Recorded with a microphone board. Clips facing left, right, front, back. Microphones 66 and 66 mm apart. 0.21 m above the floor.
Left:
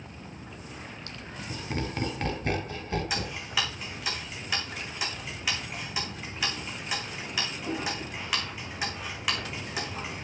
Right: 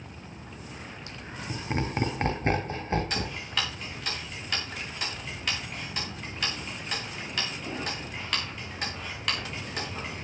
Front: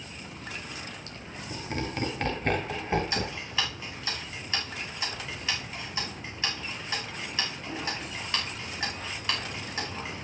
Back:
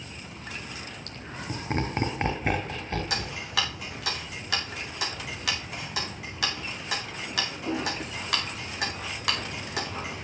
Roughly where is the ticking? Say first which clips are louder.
Even, back 1 dB; behind.